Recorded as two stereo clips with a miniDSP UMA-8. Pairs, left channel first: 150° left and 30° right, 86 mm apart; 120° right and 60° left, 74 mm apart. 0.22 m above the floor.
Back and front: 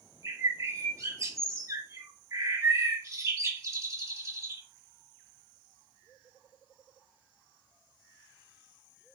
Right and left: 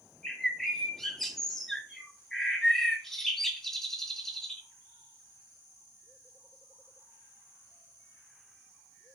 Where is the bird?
35° right, 1.7 m.